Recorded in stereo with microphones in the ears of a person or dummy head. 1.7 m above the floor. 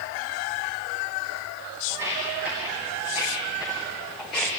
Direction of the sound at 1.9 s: 15° right (ahead or behind).